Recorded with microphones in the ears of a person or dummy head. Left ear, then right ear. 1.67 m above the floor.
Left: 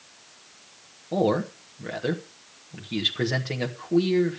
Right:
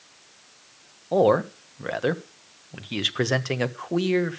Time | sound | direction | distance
1.1 | a man speaking | 40° right (ahead or behind) | 1.0 m